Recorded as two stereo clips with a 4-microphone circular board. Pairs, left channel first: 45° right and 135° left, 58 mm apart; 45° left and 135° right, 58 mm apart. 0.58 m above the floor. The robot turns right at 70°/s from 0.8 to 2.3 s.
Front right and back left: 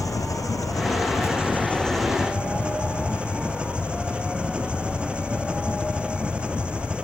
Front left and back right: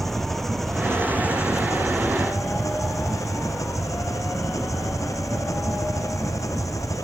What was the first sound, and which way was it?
An engine running, 40° right.